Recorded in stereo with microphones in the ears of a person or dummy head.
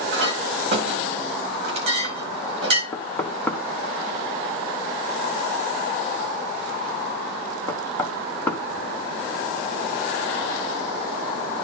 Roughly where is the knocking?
Centre.